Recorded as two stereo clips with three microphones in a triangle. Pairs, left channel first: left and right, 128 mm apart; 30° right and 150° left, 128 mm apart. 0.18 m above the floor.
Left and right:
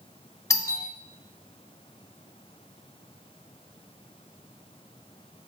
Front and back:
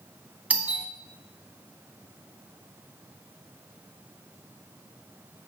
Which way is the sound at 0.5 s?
90° left.